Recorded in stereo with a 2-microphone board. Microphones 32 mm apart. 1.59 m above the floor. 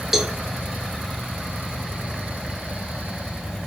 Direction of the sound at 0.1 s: 10° right (ahead or behind).